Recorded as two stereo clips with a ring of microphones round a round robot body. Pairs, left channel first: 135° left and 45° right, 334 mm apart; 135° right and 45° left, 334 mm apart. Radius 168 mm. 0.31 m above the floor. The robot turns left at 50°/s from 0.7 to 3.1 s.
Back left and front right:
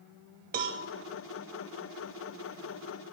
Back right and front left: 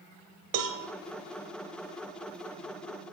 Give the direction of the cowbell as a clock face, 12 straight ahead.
11 o'clock.